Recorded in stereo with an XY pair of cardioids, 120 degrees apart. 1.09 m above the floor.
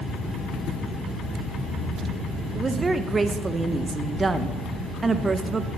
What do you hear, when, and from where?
2.5 s a woman speaking: 25° right, 0.6 m